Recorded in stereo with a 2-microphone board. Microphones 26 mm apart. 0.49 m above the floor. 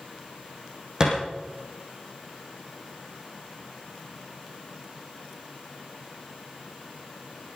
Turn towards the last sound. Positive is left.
turn(degrees=-30)  # may be behind; listen again after turning